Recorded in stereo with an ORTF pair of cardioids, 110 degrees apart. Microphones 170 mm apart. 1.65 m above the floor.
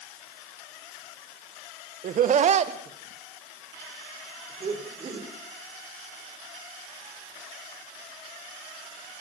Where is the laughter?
55° right, 1.4 m; by 5.3 s 35° right, 6.5 m.